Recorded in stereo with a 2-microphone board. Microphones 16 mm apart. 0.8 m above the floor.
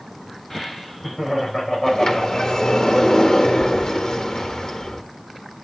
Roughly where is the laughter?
Centre.